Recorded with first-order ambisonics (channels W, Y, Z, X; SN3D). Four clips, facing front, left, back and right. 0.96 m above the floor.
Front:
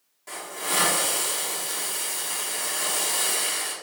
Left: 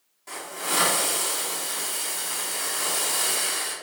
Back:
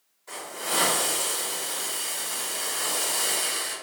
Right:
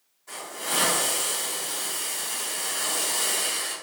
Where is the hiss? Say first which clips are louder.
Left 1 dB, front 1 dB; 35° left, 1.8 m.